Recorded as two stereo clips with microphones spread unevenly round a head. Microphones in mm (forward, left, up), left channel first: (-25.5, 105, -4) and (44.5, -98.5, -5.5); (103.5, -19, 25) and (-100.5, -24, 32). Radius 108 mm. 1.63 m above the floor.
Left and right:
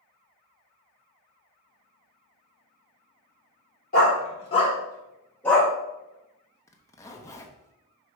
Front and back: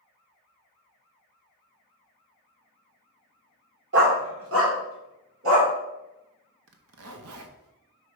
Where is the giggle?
No giggle in this recording.